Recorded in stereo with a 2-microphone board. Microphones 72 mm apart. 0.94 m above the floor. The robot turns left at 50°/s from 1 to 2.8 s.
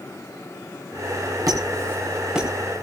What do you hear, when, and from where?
1.5 s a squeak: 55° right (ahead or behind), 4 m; by 2.5 s 5° right (ahead or behind), 4 m